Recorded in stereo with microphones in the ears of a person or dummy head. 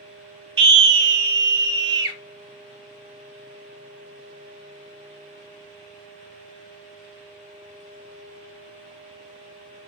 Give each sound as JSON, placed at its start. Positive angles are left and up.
{"t": 0.6, "sound": "a scream", "side_deg": -60, "distance_m": 0.8}